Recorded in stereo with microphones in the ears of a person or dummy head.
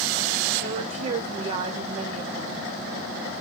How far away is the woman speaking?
About 1.4 m.